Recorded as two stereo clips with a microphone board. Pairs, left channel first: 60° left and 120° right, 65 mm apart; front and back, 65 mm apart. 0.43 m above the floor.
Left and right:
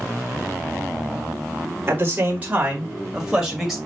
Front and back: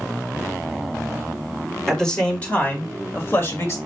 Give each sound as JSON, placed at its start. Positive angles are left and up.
{"t": 1.9, "sound": "a man speaking", "azimuth_deg": -80, "distance_m": 1.3}